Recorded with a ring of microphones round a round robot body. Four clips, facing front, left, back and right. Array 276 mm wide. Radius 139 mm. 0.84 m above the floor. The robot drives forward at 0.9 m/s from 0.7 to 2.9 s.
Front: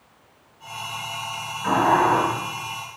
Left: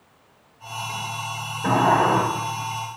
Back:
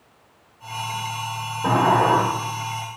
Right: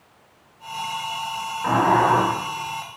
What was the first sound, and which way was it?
A sliding door, 145° left.